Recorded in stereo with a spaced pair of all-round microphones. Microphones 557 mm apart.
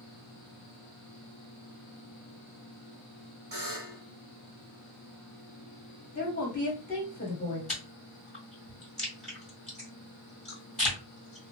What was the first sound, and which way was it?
A buzzer, 45° right (ahead or behind).